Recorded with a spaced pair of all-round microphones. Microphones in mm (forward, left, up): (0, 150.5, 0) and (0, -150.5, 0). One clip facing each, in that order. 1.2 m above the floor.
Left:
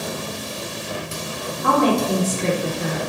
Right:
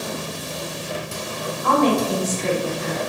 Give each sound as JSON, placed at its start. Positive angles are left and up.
{"t": 1.6, "sound": "a woman speaking", "side_deg": 70, "distance_m": 0.7}